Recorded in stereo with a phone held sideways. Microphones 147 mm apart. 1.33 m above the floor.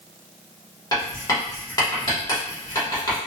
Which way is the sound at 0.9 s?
25° left (ahead or behind).